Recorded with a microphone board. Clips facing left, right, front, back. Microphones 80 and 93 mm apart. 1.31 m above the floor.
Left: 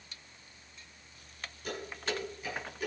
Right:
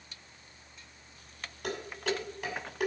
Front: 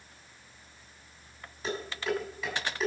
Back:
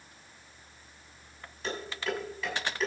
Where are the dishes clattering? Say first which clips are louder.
Right 4 dB, front 2 dB; 85° right, 6 m.